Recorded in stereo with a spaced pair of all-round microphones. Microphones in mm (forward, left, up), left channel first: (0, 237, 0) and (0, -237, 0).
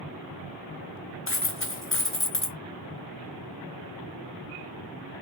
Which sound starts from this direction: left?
A dropped coin, at 1.3 s.